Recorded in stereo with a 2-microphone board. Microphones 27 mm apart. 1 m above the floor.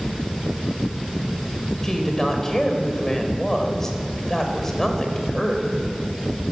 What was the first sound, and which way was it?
A woman speaking, 20° left (ahead or behind).